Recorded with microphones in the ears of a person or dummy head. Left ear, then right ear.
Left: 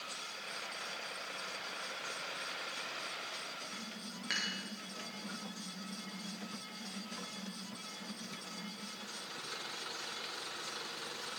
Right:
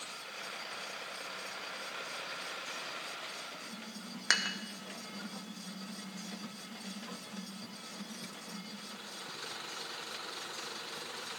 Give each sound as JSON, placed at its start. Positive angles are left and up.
{"t": 4.3, "sound": "dishes clattering", "side_deg": -55, "distance_m": 1.0}